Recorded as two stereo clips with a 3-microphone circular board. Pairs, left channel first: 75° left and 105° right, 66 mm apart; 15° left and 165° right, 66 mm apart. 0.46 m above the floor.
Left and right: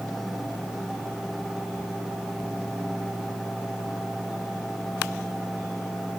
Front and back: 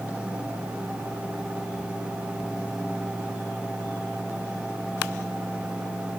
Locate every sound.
Only background noise.